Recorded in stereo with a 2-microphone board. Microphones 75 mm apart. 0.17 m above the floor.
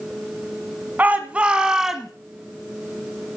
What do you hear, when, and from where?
1.0 s a shout: 25° right (ahead or behind), 1.5 m; by 2.1 s centre (ahead or behind), 1.5 m